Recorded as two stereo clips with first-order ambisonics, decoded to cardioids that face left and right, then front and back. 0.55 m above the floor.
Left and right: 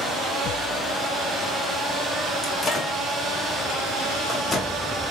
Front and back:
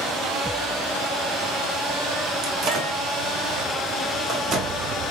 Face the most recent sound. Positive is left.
turn(degrees=155)